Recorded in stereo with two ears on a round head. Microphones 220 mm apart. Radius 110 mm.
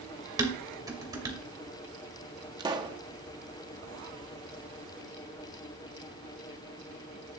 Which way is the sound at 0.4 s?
15° right (ahead or behind).